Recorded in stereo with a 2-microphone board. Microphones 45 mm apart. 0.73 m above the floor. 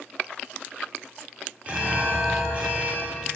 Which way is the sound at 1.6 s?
25° right (ahead or behind).